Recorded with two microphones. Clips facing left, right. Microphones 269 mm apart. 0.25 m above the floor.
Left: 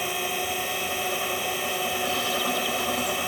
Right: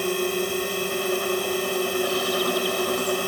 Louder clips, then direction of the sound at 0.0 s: Right 8 dB; 50° right (ahead or behind).